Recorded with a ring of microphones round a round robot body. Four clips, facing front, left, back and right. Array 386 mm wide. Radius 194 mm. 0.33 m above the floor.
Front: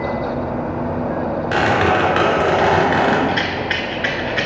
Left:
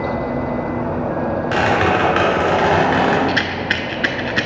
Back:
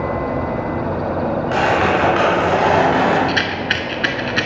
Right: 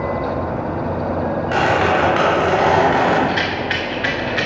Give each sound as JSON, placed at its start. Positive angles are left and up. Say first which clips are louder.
{"t": 1.5, "sound": "a squeak", "louder": "right 1 dB, front 1 dB", "azimuth_deg": 45, "distance_m": 3.0}
{"t": 3.3, "sound": "a rattle", "louder": "even, even", "azimuth_deg": 130, "distance_m": 0.8}